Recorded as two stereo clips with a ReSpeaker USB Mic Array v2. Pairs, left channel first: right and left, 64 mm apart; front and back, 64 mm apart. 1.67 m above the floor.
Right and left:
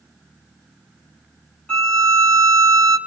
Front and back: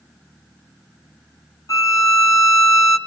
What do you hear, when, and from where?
1.7 s a violin: 15° right, 3 m